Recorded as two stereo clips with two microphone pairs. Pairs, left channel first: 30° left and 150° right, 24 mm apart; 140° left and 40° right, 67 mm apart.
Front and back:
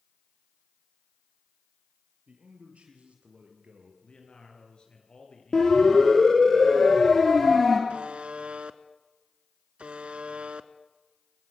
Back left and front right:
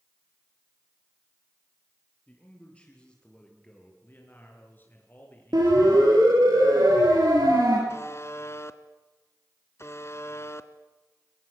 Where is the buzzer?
170° right, 1.1 m.